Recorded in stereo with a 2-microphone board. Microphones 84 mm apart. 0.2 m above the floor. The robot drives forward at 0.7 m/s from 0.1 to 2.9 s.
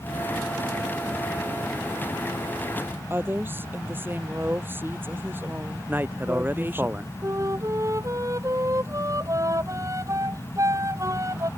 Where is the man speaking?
25° right (ahead or behind).